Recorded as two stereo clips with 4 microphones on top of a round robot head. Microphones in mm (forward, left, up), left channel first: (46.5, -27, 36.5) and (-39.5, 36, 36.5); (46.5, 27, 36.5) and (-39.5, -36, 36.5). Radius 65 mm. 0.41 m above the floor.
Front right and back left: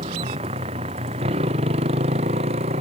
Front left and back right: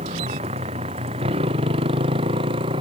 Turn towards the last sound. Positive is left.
turn(degrees=170)